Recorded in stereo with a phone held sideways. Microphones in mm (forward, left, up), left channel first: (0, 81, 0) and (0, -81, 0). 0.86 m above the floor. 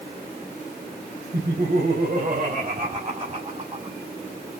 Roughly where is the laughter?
Right.